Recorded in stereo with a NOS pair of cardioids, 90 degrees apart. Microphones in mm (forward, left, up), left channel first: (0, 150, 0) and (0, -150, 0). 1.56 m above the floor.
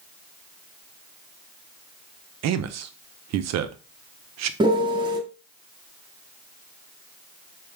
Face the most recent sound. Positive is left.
turn(degrees=-15)